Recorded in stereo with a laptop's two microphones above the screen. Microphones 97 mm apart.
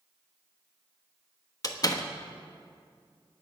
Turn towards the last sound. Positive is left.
turn(degrees=40)  # may be behind; listen again after turning